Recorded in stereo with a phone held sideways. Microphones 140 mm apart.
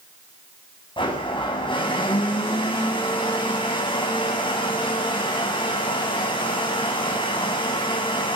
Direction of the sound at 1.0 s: 35° left (ahead or behind).